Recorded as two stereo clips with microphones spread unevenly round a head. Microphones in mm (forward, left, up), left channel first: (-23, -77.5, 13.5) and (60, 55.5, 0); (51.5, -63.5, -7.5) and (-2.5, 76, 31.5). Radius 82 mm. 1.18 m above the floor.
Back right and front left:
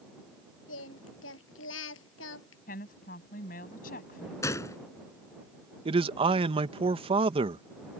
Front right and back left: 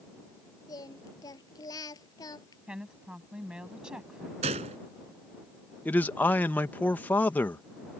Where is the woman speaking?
165° right.